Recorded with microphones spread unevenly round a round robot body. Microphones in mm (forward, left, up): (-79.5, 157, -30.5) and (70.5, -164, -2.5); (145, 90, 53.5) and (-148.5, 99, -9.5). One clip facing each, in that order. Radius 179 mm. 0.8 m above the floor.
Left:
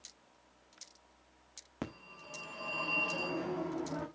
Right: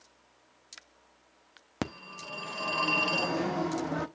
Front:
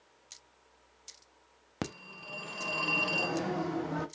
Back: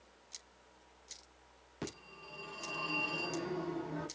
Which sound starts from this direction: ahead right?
A phone ringing, at 1.8 s.